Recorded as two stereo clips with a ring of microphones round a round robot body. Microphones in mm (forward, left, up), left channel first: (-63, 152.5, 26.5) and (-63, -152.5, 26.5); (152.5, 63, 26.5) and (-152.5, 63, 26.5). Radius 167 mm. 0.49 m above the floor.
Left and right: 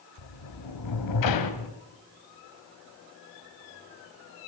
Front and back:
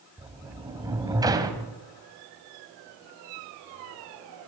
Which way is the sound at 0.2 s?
100° left.